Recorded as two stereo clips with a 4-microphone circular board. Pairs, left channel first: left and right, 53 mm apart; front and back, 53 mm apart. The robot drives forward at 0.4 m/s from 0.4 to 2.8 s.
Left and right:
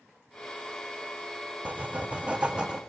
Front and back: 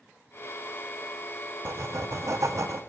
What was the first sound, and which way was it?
Writing, 150° right.